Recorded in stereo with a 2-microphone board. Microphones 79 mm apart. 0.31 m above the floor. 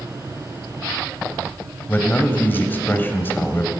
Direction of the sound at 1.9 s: 25° left (ahead or behind).